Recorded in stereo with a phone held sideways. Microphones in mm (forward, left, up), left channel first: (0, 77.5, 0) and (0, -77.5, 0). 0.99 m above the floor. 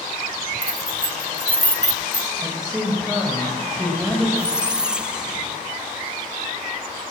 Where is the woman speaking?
5° right (ahead or behind), 3.5 m.